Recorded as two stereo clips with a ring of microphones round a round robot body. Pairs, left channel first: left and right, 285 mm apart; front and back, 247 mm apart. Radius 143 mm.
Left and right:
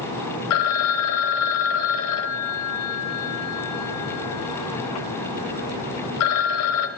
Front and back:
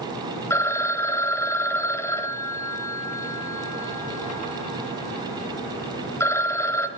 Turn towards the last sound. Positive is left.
turn(degrees=80)